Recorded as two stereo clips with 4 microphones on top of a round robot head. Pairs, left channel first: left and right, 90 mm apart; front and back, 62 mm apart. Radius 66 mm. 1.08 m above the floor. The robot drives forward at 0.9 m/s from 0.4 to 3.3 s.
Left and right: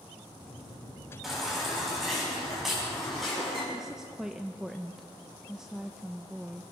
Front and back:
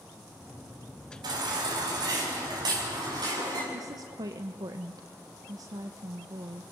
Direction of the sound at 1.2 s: Straight behind.